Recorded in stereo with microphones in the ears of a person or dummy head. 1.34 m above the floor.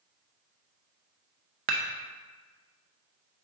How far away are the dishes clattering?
About 0.6 m.